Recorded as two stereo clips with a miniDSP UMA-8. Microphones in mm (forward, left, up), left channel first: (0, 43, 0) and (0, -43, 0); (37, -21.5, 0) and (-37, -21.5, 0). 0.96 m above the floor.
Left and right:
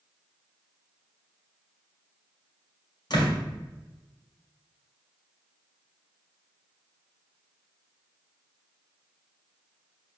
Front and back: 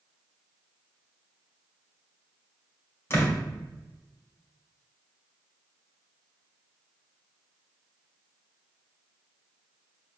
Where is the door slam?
55° left, 3 m.